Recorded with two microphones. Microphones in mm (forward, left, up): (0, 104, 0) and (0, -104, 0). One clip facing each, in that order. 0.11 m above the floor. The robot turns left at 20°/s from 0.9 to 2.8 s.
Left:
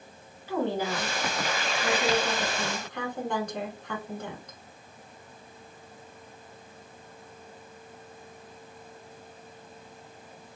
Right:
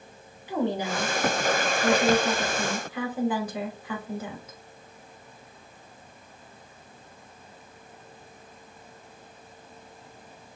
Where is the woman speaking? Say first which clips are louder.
Right 1 dB; 15° right (ahead or behind), 1.1 m; by 4.6 s 5° right (ahead or behind), 1.1 m.